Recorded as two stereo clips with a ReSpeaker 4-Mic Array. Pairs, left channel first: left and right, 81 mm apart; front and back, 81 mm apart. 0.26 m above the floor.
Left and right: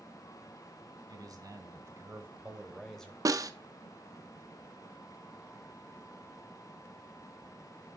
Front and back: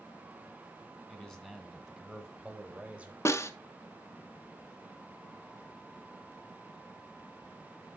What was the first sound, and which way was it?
A man speaking, 80° right.